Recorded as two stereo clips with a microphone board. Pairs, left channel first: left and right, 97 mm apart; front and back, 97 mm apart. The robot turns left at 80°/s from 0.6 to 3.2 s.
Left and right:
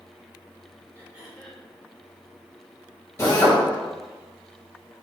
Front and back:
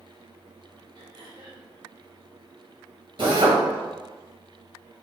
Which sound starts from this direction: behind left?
A drill, at 3.2 s.